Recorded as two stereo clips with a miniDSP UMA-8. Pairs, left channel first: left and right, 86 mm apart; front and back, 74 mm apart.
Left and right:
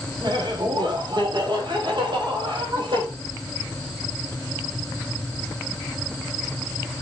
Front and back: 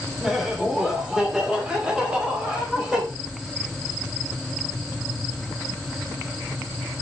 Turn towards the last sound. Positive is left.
turn(degrees=-100)